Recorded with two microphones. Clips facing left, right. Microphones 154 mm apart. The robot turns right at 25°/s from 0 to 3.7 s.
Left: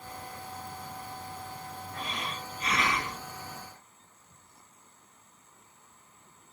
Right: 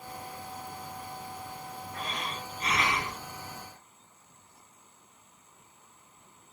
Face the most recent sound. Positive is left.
turn(degrees=-5)